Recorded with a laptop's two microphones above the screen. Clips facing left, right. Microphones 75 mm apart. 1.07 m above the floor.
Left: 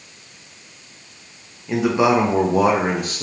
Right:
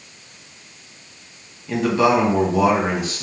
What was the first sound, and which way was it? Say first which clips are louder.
A man speaking: even; 5° left (ahead or behind).